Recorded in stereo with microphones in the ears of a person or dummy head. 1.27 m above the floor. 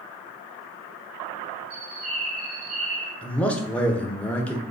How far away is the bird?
About 1.0 m.